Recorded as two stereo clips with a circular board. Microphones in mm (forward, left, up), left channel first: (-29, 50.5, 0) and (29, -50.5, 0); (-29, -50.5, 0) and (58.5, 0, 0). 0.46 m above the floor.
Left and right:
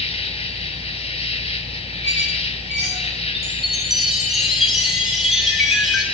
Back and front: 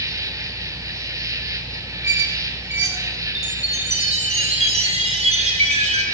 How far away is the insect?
About 1.5 m.